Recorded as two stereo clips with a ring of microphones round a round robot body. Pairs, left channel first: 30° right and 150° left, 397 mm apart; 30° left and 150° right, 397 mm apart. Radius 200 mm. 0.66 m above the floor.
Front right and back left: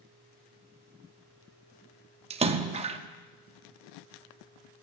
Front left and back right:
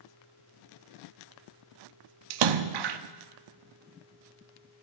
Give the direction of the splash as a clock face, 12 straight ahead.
5 o'clock.